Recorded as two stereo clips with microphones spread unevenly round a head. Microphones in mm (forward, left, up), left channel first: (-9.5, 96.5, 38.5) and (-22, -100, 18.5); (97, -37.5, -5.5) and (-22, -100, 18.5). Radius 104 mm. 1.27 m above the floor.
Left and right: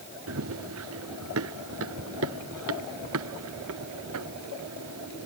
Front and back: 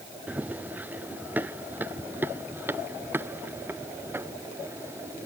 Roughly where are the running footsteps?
Right.